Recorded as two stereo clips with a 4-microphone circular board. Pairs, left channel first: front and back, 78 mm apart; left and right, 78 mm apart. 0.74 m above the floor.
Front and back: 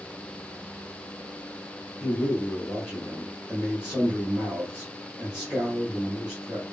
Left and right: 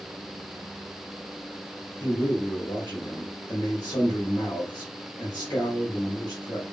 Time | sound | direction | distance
2.0 | a man speaking | 100° left | 1.6 m